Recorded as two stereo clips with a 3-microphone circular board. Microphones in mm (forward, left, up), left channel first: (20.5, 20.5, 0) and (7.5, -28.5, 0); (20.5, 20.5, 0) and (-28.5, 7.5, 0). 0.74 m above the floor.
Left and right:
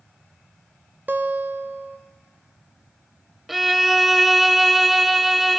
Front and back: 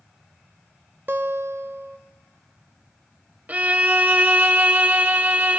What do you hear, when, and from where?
1.1 s a guitar: 140° right, 0.6 m
3.5 s a violin: 175° left, 0.6 m